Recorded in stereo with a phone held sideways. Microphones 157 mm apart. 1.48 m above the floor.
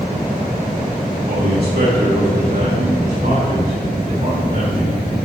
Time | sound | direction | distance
1.2 | a man speaking | 80° right | 2.0 m